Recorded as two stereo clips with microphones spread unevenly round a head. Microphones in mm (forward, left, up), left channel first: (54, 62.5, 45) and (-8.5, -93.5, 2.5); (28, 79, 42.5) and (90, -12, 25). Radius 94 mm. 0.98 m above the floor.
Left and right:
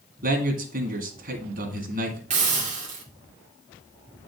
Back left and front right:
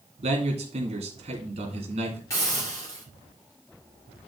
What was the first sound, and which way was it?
A man speaking, 90° right.